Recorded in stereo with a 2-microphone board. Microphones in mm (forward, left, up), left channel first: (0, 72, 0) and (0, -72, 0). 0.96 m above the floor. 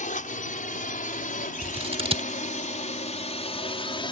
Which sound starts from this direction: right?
Scissors, at 1.6 s.